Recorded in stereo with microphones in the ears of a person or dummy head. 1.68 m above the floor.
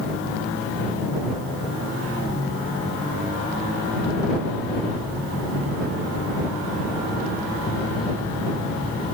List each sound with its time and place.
Only background noise.